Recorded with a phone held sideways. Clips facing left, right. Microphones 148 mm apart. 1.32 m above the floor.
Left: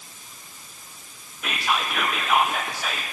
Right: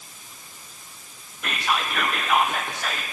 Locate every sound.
1.4 s whispering: 5° left (ahead or behind), 0.7 m